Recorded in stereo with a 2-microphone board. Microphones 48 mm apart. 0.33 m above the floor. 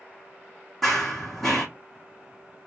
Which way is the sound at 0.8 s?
5° left (ahead or behind).